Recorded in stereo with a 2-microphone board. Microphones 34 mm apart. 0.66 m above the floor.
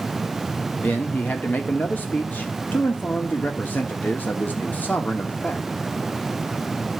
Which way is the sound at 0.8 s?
60° left (ahead or behind).